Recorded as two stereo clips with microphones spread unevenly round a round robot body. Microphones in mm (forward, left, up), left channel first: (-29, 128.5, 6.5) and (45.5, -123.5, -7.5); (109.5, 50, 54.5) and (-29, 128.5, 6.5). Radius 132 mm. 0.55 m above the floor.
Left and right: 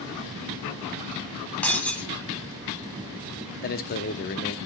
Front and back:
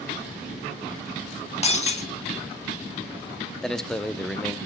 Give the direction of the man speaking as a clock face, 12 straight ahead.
9 o'clock.